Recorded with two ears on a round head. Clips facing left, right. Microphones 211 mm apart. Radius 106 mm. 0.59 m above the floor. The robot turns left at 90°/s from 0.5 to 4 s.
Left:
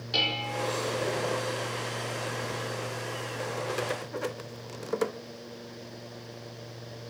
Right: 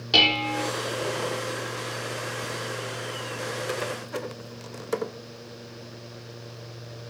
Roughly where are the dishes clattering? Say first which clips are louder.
Right 7 dB; right.